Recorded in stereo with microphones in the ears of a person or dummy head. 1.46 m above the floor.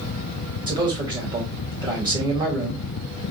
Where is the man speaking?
25° right (ahead or behind), 1.7 m.